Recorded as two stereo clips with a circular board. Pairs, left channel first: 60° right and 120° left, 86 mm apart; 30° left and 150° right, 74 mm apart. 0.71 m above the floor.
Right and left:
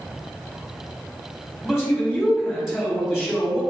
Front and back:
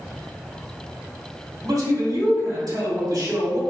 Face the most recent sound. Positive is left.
turn(degrees=-155)